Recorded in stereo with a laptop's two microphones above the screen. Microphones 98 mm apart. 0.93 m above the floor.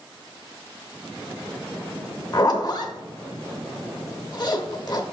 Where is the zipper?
45° left (ahead or behind), 0.8 m.